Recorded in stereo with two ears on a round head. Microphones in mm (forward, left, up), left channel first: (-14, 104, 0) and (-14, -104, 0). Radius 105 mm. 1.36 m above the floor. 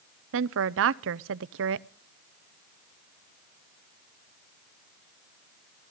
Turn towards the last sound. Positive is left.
turn(degrees=-55)  # may be behind; listen again after turning